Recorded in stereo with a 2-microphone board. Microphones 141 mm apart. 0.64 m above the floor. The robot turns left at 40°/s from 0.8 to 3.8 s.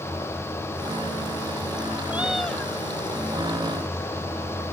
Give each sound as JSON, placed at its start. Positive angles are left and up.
{"t": 2.1, "sound": "a cat meowing", "side_deg": -15}